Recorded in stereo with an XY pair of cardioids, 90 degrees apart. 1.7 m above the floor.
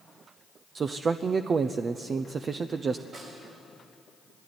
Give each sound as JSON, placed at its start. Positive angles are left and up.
{"t": 0.8, "sound": "a man speaking", "azimuth_deg": -45, "distance_m": 0.6}
{"t": 3.1, "sound": "a snare drum", "azimuth_deg": -65, "distance_m": 6.0}